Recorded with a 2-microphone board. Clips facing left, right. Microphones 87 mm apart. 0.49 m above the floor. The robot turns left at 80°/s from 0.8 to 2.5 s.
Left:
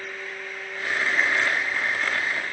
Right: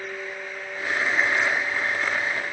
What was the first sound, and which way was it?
Only background noise.